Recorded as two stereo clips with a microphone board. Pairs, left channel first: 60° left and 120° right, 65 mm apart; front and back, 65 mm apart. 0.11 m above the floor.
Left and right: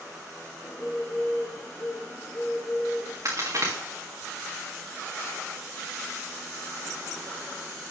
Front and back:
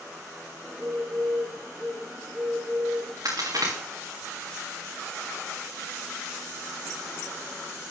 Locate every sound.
0.6 s a bird: 110° left, 1.5 m
3.2 s a crack: 150° right, 3 m